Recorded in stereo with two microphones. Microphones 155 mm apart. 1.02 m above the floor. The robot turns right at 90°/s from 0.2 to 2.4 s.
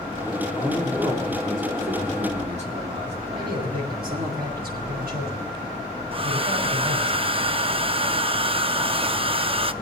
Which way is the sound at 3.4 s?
85° right.